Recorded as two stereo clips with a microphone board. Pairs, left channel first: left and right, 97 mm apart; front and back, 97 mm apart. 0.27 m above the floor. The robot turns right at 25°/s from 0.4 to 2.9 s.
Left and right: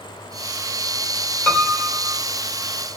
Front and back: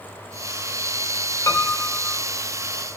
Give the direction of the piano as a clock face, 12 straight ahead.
11 o'clock.